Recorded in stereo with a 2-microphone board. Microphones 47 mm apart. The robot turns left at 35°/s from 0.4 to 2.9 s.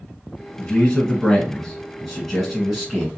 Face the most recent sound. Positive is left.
turn(degrees=-10)  # may be behind; listen again after turning